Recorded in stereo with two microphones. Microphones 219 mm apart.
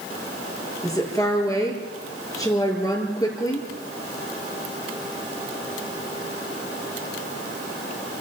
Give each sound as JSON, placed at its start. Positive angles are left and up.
{"t": 0.8, "sound": "a woman speaking", "side_deg": 15, "distance_m": 7.0}